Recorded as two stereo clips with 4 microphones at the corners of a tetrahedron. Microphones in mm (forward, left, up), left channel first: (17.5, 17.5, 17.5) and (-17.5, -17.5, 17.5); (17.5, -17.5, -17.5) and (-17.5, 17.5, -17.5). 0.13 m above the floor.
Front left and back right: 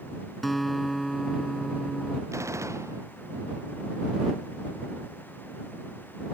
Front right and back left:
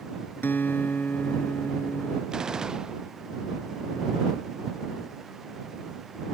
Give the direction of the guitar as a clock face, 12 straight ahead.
1 o'clock.